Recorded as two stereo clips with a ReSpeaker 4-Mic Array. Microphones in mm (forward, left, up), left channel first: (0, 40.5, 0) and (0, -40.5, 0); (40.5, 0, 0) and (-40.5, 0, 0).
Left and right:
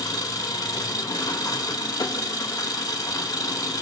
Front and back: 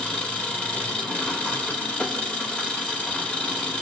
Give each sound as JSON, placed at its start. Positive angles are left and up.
{"t": 0.0, "sound": "an engine running", "azimuth_deg": 70, "distance_m": 1.5}